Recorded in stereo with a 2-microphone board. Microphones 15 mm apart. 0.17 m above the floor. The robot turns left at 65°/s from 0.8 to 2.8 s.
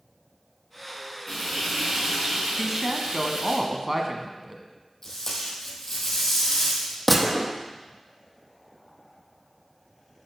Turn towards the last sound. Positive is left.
turn(degrees=5)  # may be behind; listen again after turning